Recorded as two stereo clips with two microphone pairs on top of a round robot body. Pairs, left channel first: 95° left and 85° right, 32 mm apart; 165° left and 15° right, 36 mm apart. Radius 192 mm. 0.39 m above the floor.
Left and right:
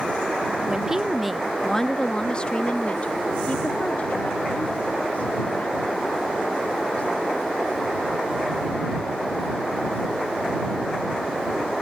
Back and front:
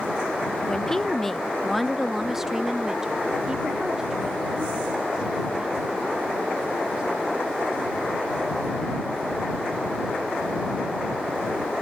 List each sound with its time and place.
0.7 s a woman speaking: 145° right; by 7.8 s 55° left